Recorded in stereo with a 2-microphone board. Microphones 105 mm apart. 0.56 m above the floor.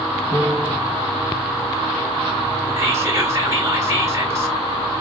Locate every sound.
0.3 s a piano: 45° left (ahead or behind), 2.5 m
2.8 s whispering: 25° right (ahead or behind), 1.9 m